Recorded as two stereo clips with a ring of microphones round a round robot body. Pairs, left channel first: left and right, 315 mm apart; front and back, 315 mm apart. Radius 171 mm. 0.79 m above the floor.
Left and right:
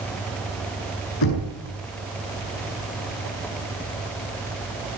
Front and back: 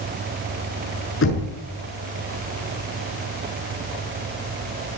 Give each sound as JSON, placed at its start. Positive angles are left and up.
{"t": 1.2, "sound": "knocking", "azimuth_deg": 50, "distance_m": 8.0}